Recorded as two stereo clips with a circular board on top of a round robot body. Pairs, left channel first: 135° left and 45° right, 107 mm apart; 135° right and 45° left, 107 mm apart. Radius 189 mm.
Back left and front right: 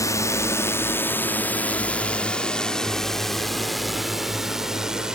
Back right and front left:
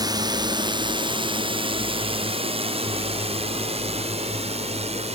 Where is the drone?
85° left; by 5.2 s 40° left.